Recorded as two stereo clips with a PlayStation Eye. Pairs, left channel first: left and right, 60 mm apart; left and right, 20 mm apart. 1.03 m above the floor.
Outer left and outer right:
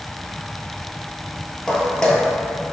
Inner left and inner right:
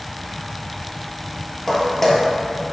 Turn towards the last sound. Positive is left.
turn(degrees=15)  # may be behind; listen again after turning